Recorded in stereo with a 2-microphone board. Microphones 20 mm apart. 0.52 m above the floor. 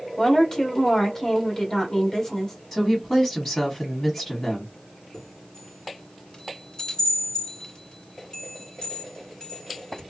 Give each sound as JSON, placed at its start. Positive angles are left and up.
{"t": 0.2, "sound": "a woman speaking", "side_deg": 25, "distance_m": 1.3}
{"t": 2.7, "sound": "a woman speaking", "side_deg": 15, "distance_m": 1.2}
{"t": 5.1, "sound": "a chime", "side_deg": 40, "distance_m": 1.6}